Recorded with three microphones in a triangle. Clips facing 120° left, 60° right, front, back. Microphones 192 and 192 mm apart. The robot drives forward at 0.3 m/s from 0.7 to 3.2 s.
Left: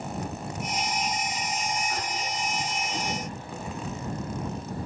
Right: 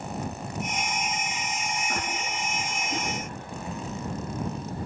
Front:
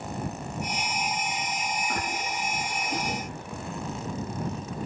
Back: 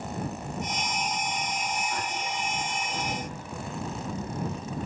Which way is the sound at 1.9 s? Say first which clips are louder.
Even, front 1 dB; 25° right.